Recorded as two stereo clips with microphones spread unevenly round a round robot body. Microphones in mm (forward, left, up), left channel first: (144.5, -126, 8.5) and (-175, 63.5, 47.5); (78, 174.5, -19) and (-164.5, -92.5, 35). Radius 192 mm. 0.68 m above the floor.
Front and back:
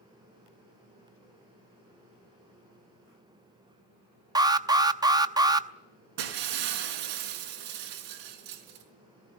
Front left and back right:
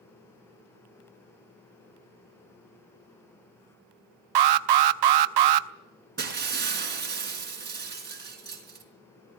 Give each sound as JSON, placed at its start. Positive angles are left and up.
{"t": 4.3, "sound": "an alarm", "azimuth_deg": -130, "distance_m": 0.8}
{"t": 6.2, "sound": "breaking glass", "azimuth_deg": 165, "distance_m": 4.5}